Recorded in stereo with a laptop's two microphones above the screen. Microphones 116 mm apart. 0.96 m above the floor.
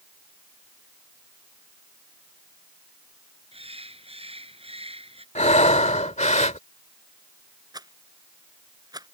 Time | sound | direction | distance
3.5 | a bird | 55° right (ahead or behind) | ?
5.3 | breathing | 80° left | ?
7.7 | a rattle | 35° right (ahead or behind) | ?